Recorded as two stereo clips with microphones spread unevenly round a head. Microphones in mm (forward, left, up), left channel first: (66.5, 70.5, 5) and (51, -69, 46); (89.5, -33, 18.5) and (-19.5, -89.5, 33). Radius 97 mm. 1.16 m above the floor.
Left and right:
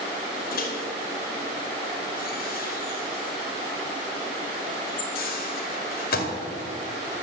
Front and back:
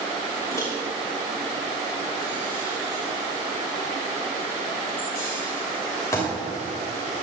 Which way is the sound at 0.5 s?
100° left.